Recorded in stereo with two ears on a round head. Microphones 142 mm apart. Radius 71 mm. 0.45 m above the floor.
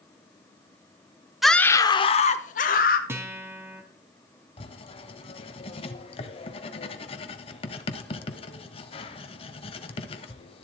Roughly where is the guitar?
Centre.